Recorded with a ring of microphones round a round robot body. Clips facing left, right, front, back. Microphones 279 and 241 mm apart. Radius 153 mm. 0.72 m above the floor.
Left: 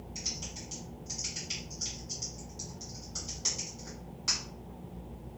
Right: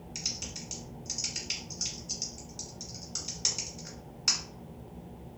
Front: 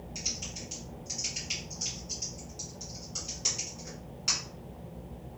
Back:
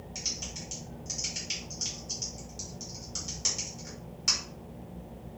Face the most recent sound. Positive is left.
turn(degrees=-115)